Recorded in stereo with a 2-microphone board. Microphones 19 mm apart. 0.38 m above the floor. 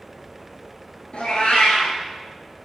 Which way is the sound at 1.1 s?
70° left (ahead or behind).